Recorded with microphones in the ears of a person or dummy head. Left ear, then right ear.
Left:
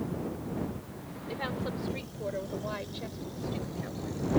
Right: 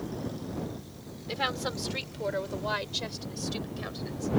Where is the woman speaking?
60° right (ahead or behind); by 4.3 s 55° right (ahead or behind).